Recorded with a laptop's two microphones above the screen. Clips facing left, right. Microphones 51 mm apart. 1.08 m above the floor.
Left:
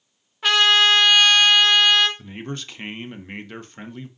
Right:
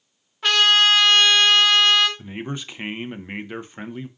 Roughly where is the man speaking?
Centre.